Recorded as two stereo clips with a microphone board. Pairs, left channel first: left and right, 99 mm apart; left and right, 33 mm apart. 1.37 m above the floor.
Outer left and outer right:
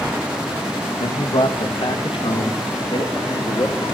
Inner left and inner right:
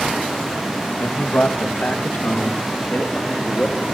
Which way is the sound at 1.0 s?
70° left (ahead or behind).